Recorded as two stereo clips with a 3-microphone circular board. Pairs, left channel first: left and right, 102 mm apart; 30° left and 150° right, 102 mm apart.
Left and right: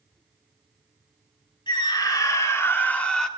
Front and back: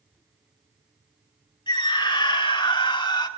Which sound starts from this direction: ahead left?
A scream, at 1.7 s.